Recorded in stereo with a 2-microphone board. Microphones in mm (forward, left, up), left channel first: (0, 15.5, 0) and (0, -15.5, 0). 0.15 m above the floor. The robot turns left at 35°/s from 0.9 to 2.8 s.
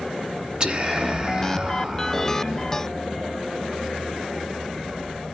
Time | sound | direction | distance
0.6 | whispering | 100° right | 1.6 m